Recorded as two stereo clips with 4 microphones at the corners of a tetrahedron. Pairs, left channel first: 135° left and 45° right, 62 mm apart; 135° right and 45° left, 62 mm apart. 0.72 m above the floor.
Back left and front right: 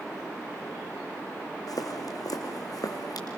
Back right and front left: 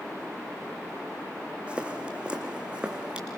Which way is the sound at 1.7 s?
115° left.